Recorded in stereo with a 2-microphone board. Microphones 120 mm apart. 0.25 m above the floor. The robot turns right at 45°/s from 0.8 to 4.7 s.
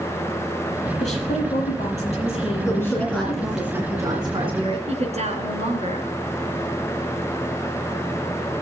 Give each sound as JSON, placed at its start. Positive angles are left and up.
{"t": 1.0, "sound": "a woman speaking", "azimuth_deg": 70, "distance_m": 6.5}
{"t": 2.6, "sound": "a woman speaking", "azimuth_deg": 150, "distance_m": 2.5}
{"t": 4.9, "sound": "a woman speaking", "side_deg": -65, "distance_m": 3.0}